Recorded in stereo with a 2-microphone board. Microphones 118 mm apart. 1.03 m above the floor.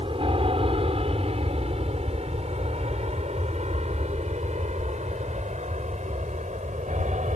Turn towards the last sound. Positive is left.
turn(degrees=-75)  # may be behind; listen again after turning